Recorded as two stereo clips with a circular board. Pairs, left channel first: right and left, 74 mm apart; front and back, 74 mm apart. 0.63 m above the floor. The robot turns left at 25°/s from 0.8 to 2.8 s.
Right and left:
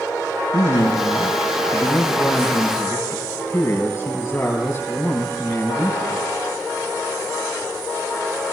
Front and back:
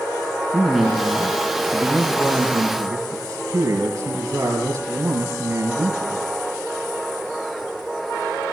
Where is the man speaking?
90° right, 5 m; by 6.2 s 140° right, 5 m.